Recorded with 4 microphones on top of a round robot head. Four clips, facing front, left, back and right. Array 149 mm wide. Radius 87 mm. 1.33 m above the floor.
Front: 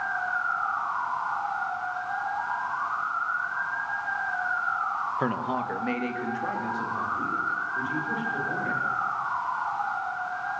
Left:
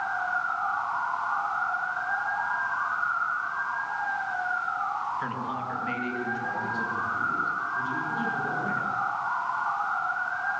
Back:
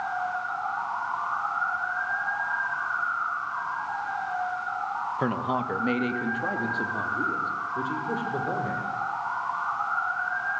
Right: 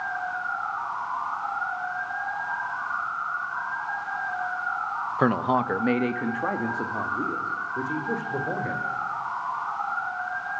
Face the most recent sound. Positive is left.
turn(degrees=-120)